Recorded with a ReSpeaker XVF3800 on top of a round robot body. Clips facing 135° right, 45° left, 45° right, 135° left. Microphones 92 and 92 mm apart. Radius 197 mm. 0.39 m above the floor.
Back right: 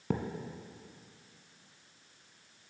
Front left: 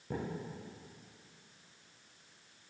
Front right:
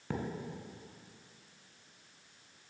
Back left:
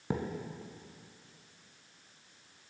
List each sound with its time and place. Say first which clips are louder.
0.1 s a thud: back right 5 dB, back left 3 dB; 150° right, 0.9 m